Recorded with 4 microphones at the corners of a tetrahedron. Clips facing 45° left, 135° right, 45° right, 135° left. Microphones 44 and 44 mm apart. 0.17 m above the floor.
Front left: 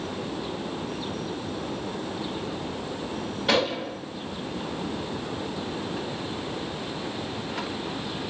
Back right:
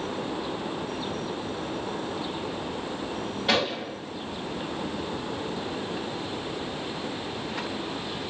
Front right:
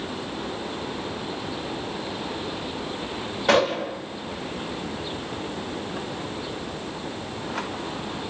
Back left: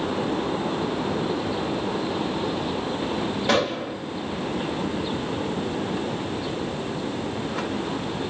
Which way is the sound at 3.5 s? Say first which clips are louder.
Front left 2 dB, front right 4 dB; 50° right.